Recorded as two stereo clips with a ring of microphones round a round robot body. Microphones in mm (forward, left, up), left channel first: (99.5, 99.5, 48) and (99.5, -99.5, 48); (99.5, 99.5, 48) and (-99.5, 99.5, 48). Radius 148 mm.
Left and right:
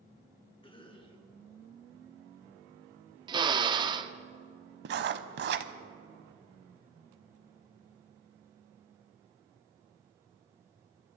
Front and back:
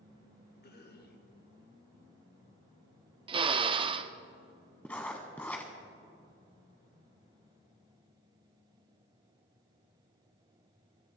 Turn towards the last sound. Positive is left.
turn(degrees=-85)